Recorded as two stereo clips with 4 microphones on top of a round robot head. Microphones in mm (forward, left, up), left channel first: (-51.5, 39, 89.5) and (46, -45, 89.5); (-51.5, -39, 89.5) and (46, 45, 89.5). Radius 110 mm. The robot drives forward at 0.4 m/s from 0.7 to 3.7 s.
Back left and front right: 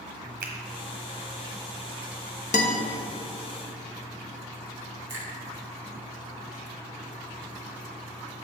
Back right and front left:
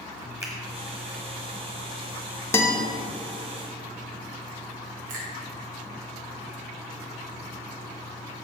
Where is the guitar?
150° left, 1.1 m.